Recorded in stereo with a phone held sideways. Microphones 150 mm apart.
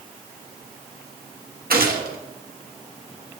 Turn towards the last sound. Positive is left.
turn(degrees=-85)